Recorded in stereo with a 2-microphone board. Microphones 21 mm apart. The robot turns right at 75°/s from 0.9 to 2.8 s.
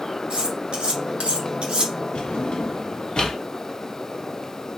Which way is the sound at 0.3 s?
55° right (ahead or behind).